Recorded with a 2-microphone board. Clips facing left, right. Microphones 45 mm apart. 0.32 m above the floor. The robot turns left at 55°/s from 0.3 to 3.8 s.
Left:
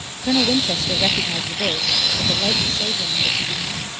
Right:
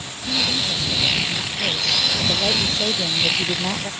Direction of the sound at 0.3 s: 115° left.